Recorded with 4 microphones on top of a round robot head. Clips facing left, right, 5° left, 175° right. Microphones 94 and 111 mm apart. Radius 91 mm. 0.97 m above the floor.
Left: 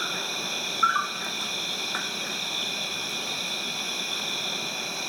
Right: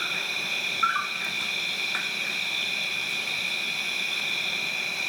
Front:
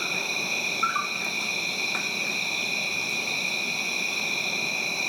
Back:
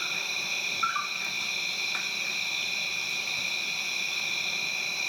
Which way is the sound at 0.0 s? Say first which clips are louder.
Left 1 dB, front 6 dB; 30° left.